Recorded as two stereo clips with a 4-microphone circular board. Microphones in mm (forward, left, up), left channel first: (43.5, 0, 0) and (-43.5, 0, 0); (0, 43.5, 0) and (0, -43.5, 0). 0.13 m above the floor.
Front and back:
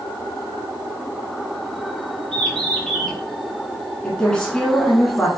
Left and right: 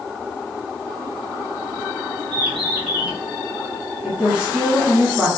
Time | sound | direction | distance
2.3 | a bird | 85° right | 1.1 m
4.0 | a woman speaking | 55° right | 1.1 m